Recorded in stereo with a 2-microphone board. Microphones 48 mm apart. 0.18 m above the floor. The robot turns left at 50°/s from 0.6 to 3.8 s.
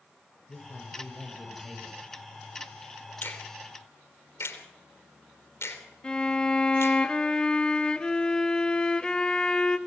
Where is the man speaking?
40° left, 4.5 m; by 2.0 s 30° right, 4.5 m.